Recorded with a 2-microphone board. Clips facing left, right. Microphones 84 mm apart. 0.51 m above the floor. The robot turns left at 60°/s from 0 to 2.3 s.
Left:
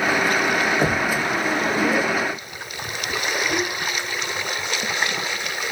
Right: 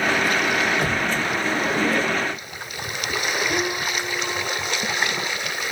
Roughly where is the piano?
Centre.